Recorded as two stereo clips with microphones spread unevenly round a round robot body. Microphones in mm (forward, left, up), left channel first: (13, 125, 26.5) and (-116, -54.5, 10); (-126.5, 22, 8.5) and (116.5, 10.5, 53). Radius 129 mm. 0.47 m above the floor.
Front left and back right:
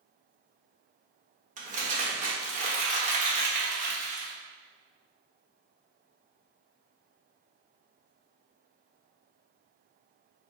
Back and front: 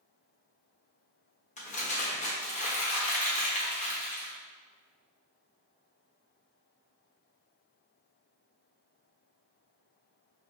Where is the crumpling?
155° right, 1.4 m.